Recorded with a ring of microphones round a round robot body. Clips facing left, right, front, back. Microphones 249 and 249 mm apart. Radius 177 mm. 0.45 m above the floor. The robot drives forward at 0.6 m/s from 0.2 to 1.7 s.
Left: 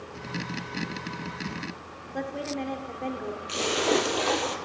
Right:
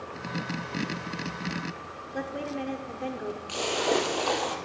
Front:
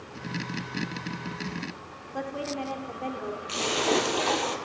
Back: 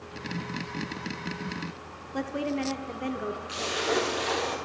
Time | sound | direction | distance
2.1 | a woman speaking | 165° right | 0.9 m
3.5 | a splash | 25° left | 2.5 m